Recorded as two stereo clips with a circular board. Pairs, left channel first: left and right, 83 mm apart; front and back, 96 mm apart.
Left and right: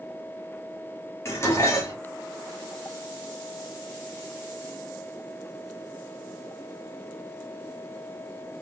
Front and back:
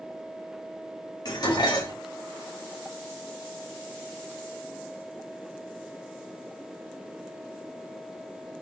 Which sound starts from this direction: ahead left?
Dishes clattering, at 1.2 s.